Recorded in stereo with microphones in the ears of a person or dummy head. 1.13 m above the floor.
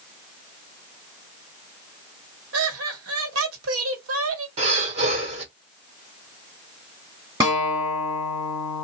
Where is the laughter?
85° right, 1.5 m.